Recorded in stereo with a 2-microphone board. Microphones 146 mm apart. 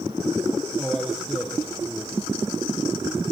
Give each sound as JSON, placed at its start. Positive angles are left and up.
{"t": 0.8, "sound": "a man speaking", "side_deg": 5, "distance_m": 6.5}